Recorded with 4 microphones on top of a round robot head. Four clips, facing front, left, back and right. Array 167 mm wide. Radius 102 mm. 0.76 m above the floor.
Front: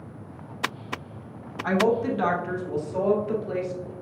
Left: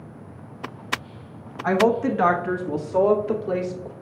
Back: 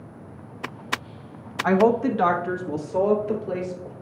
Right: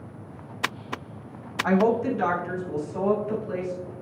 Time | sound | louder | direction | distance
1.6 | a woman speaking | left 2 dB, back 4 dB | 175° left | 1.0 m